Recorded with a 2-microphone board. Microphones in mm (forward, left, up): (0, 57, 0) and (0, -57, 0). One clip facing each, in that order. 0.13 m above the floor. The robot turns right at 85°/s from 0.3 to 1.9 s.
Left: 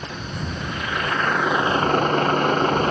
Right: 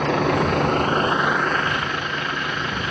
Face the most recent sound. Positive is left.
turn(degrees=45)